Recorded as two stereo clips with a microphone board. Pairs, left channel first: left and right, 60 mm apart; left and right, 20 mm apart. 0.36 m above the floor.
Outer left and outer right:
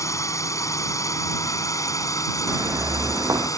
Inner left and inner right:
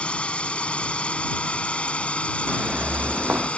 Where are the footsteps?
55° right (ahead or behind); by 3.5 s 65° right (ahead or behind).